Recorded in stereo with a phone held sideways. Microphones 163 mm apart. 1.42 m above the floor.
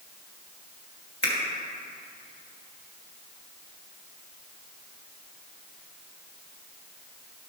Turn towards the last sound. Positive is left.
turn(degrees=70)  # may be behind; listen again after turning